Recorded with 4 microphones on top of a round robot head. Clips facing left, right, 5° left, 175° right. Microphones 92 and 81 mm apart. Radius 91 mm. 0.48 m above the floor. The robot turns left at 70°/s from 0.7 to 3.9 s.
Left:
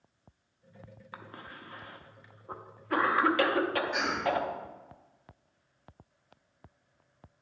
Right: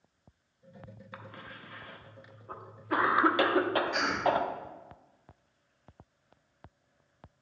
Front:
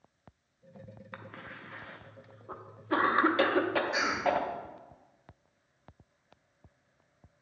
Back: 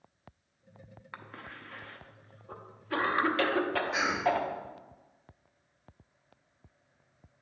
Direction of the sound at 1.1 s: 120° left.